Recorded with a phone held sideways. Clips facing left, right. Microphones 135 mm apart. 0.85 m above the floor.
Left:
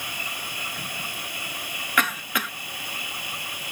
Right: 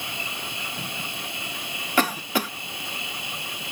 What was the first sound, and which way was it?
An insect, 25° right (ahead or behind).